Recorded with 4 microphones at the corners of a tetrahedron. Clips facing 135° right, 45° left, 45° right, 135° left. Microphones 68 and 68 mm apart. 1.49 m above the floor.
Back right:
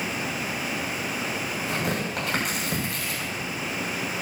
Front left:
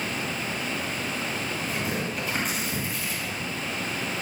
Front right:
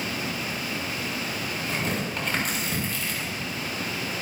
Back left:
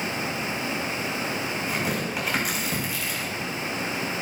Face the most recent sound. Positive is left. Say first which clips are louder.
# back right 3 dB, front right 1 dB
turn(degrees=-140)